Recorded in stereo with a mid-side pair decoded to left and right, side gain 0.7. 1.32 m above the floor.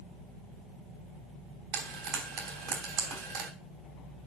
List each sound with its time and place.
1.7 s frying: 70° right, 3 m